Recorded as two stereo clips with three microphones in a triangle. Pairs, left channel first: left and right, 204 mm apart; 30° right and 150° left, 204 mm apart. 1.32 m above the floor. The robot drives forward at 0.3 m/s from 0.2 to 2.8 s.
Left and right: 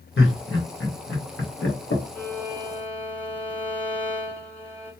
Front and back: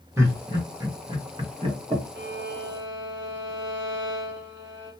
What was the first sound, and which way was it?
Laughter, 75° left.